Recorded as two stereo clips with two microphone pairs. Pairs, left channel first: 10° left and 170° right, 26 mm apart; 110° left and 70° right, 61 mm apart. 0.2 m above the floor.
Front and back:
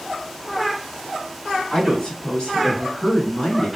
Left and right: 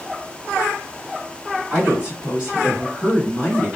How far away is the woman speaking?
About 1.5 m.